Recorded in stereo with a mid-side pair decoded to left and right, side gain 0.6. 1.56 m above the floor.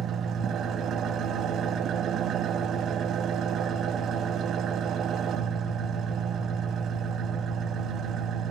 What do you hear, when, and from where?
0.0 s an engine running: 50° right, 1.8 m